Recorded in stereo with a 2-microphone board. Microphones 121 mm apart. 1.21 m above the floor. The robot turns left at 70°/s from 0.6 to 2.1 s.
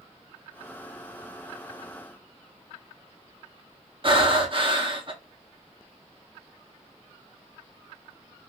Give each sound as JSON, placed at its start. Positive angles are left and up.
{"t": 4.0, "sound": "breathing", "side_deg": -45, "distance_m": 0.6}